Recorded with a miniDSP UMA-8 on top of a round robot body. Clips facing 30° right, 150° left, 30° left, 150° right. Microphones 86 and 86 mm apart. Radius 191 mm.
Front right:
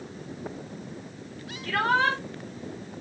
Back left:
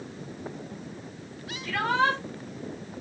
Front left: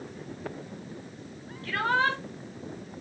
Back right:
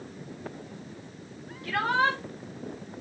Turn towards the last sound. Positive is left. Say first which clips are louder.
# front right 1 dB, back right 1 dB
turn(degrees=-80)